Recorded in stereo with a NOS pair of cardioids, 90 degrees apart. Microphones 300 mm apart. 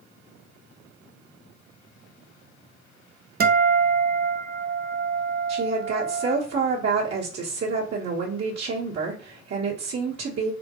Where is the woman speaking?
55° right, 1.3 m.